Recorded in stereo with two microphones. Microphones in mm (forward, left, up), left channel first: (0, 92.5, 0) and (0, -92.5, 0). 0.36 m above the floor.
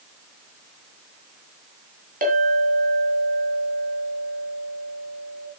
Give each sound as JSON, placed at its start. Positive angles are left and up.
{"t": 2.2, "sound": "a clink", "side_deg": -45, "distance_m": 2.0}